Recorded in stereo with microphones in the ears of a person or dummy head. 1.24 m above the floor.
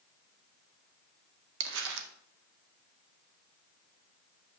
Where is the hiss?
No hiss in this recording.